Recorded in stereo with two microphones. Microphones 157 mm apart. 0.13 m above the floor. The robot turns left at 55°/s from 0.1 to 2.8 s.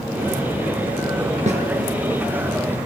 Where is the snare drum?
50° right (ahead or behind), 1.8 m; by 1.6 s 45° right (ahead or behind), 1.8 m.